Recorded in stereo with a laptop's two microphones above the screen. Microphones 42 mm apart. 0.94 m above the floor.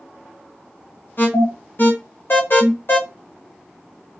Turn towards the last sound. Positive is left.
turn(degrees=55)  # may be behind; listen again after turning